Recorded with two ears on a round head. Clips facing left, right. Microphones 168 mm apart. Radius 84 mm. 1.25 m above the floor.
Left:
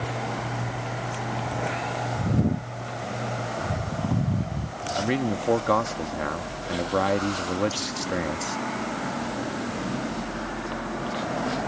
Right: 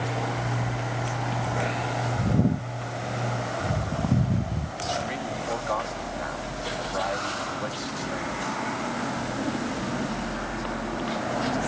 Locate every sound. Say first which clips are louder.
5.0 s a man speaking: left 6 dB; 65° left (ahead or behind)